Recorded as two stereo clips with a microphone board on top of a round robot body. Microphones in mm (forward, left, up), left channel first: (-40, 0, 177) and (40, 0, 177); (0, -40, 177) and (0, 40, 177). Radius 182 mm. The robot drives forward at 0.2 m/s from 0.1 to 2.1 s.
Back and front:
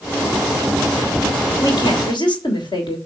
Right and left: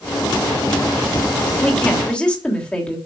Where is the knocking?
I don't hear knocking.